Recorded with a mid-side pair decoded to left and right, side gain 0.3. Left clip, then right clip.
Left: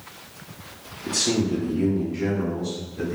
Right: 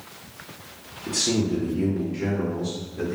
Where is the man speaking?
30° left, 0.9 m; by 3.2 s 25° right, 1.8 m.